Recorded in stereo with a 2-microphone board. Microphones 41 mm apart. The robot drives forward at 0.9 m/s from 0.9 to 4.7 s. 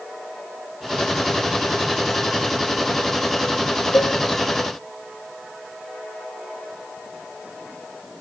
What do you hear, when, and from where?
3.9 s a cowbell: 80° left, 3.5 m; by 4.2 s 75° left (ahead or behind), 3.5 m